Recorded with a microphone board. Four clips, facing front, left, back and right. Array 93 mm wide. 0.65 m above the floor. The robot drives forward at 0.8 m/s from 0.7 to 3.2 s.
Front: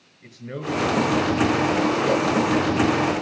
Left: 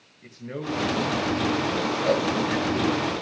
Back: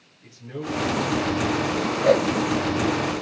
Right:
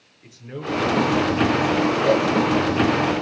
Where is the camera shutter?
I don't hear a camera shutter.